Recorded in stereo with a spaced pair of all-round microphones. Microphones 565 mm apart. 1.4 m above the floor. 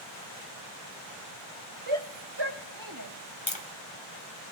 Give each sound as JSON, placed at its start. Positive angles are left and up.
{"t": 1.9, "sound": "a shout", "side_deg": -60, "distance_m": 2.0}
{"t": 3.5, "sound": "tapping", "side_deg": 50, "distance_m": 2.5}